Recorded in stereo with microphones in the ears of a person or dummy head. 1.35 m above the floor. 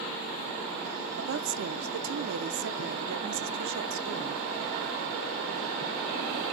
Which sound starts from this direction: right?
A woman speaking, at 1.2 s.